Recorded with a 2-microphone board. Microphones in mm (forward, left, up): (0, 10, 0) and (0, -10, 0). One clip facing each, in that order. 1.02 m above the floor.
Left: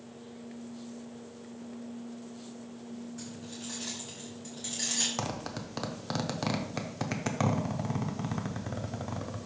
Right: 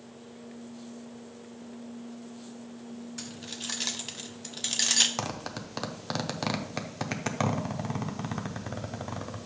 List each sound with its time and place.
3.2 s keys jangling: 50° right (ahead or behind), 0.7 m
5.2 s a zipper: 10° right (ahead or behind), 0.6 m